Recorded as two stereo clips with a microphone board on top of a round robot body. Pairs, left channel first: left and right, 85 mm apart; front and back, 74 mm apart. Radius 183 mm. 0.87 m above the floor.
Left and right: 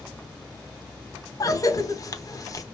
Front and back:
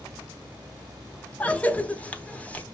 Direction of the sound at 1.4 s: 65° left.